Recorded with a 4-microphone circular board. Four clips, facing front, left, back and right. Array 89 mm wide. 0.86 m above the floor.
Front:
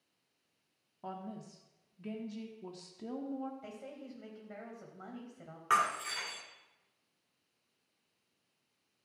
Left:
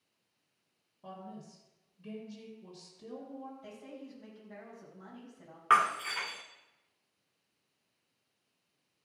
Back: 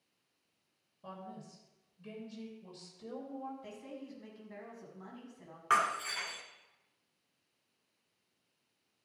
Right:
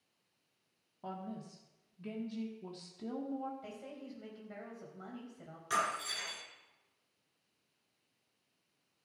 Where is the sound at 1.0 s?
35° right, 1.3 m.